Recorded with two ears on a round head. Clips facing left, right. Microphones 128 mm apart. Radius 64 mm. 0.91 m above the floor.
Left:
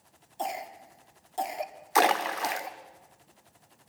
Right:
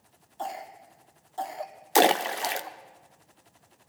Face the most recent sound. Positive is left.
turn(degrees=-35)  # may be behind; listen again after turning